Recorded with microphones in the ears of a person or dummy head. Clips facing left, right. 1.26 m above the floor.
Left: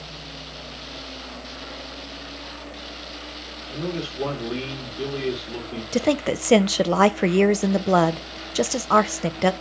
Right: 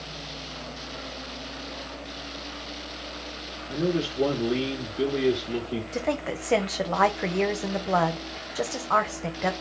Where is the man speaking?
25° right (ahead or behind), 2 m.